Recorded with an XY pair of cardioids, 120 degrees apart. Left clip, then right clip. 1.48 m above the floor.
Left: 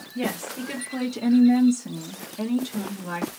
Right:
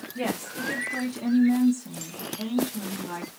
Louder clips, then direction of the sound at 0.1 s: Left 1 dB; straight ahead.